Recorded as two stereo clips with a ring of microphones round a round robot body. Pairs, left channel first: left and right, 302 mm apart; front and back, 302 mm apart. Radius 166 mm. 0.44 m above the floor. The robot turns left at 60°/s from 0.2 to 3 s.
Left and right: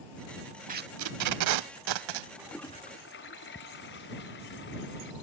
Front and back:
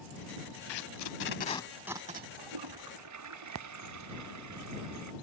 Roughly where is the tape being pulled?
Ahead right.